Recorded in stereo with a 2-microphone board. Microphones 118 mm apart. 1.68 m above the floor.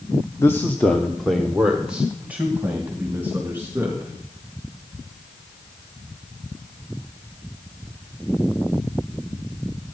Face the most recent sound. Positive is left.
turn(degrees=-20)  # may be behind; listen again after turning